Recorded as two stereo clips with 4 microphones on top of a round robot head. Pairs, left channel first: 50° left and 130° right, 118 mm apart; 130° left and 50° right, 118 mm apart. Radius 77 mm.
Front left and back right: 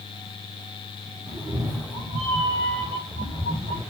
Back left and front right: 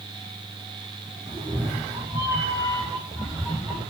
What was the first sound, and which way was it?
A cat meowing, 80° right.